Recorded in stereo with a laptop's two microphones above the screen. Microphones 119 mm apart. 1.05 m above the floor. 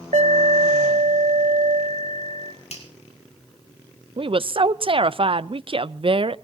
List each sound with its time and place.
0.1 s an alarm: 80° right, 2.5 m
2.7 s a finger snap: 65° left (ahead or behind), 5.5 m
4.2 s a woman speaking: 50° right (ahead or behind), 0.6 m